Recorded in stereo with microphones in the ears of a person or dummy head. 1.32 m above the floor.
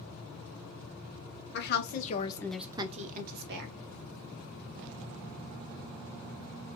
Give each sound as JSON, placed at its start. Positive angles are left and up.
{"t": 1.5, "sound": "a woman speaking", "side_deg": 60, "distance_m": 1.2}